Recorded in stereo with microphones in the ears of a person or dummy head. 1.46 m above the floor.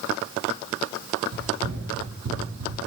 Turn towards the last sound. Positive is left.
turn(degrees=-55)  # may be behind; listen again after turning